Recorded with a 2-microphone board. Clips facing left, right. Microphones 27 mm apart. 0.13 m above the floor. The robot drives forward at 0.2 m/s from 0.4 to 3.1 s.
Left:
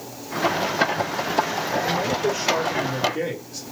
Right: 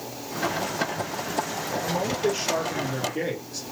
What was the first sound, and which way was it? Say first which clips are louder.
A man speaking: even; centre (ahead or behind).